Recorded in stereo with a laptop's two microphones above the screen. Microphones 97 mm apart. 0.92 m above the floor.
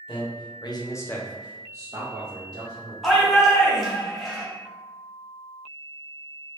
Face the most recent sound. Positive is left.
turn(degrees=0)  # may be behind; listen again after turning